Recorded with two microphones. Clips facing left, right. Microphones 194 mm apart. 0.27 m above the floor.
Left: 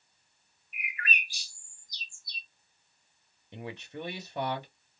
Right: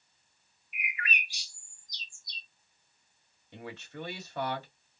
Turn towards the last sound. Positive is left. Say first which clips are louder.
# left 2 dB
turn(degrees=15)  # may be behind; listen again after turning